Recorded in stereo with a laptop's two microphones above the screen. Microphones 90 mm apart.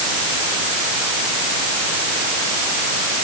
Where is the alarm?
I don't hear an alarm.